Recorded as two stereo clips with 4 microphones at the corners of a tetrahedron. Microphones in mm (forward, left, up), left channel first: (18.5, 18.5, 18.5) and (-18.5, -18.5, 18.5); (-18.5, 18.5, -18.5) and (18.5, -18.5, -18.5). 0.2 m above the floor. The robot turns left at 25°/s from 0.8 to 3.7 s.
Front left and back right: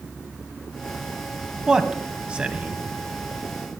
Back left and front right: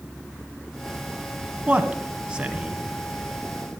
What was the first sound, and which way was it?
A man speaking, 75° right.